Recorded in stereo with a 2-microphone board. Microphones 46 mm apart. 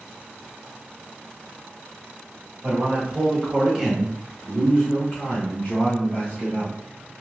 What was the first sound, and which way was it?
A man speaking, 25° right (ahead or behind).